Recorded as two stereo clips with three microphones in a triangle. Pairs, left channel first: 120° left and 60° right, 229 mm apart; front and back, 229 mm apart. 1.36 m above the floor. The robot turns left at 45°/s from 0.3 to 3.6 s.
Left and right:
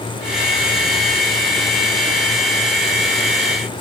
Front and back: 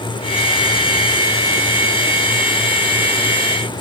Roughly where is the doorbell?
No doorbell in this recording.